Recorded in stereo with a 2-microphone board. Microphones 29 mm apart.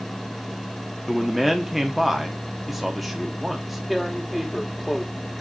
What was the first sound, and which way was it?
A man speaking, centre (ahead or behind).